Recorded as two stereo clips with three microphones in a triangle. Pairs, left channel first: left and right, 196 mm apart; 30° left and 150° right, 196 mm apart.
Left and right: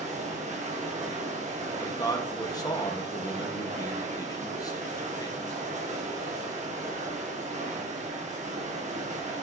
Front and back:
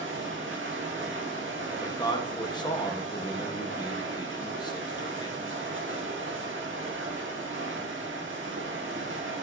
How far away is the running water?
About 1.6 m.